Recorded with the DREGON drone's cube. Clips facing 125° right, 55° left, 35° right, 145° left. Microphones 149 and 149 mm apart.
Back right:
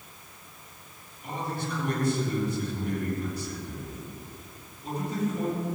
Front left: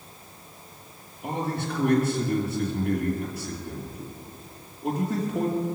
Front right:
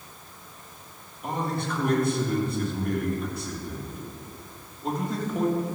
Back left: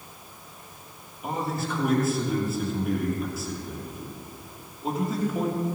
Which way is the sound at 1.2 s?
60° left.